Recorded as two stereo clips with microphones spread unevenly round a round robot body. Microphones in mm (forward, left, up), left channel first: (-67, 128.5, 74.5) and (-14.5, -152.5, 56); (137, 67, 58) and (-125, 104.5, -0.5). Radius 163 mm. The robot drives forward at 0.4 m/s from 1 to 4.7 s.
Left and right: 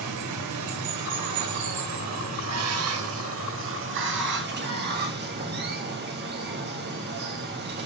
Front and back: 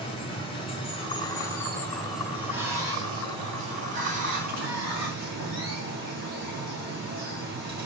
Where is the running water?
85° right, 1.6 m; by 7.9 s 130° right, 2 m.